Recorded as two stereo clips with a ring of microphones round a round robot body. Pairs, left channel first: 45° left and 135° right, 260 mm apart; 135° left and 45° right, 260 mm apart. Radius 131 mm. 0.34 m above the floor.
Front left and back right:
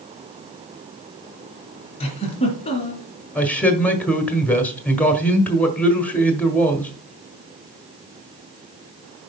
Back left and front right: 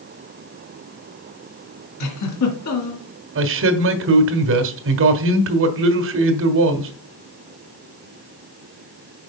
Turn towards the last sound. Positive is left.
turn(degrees=-40)